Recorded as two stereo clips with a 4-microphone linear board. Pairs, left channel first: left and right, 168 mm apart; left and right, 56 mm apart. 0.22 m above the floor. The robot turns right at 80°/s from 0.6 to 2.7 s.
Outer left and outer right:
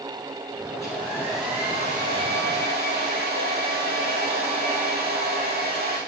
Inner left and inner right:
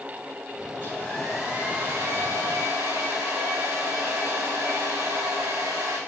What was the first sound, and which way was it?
A hair dryer, 130° left.